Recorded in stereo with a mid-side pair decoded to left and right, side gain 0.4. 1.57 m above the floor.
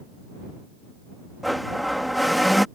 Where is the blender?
Straight ahead.